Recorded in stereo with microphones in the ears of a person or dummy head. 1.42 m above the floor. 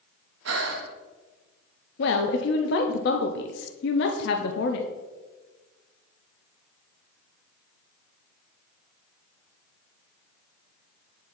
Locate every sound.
0.5 s breathing: 70° right (ahead or behind), 0.8 m
2.0 s a woman speaking: 60° left (ahead or behind), 0.6 m